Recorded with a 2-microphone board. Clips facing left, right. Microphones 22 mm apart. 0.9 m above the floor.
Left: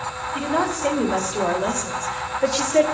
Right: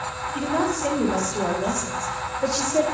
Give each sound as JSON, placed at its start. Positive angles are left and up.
{"t": 0.3, "sound": "a woman speaking", "side_deg": 25, "distance_m": 3.5}